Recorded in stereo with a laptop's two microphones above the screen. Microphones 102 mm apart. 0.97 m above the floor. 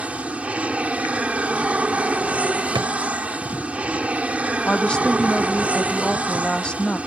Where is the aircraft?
10° right (ahead or behind).